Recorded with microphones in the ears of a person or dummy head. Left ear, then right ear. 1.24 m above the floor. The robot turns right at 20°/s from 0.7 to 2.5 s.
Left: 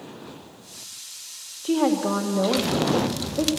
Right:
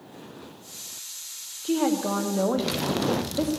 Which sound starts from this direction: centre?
A woman speaking, at 1.6 s.